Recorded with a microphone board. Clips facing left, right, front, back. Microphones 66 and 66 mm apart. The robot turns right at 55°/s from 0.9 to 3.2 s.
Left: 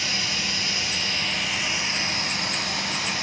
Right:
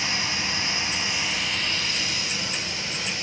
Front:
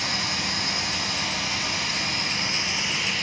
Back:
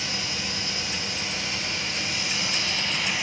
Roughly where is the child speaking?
I don't hear a child speaking.